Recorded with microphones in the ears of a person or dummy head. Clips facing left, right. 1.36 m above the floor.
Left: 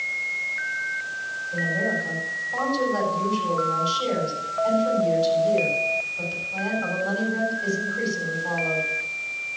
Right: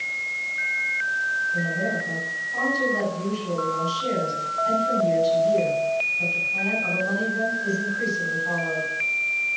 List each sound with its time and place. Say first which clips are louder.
1.5 s a woman speaking: left 1 dB; 80° left, 8 m